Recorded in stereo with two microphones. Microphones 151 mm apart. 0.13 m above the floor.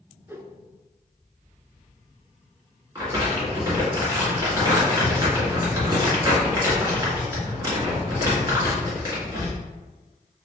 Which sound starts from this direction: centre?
A whoosh, at 0.3 s.